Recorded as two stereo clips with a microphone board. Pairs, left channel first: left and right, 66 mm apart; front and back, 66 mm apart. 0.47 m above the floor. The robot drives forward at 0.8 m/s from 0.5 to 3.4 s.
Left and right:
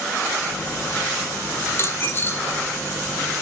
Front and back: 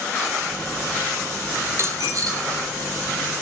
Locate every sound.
1.7 s a dropped coin: 130° left, 1.2 m; by 2.6 s 150° left, 1.8 m